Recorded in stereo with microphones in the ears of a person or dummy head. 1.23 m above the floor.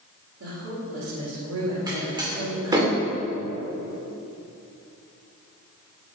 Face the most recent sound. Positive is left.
turn(degrees=-20)  # may be behind; listen again after turning